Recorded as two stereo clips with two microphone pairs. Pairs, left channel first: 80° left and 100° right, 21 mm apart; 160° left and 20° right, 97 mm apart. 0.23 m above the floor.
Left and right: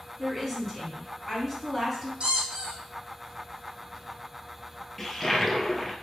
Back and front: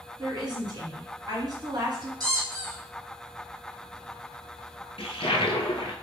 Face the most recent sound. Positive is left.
turn(degrees=160)